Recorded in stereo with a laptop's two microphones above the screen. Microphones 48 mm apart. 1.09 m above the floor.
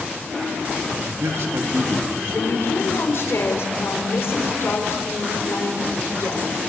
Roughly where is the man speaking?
Right.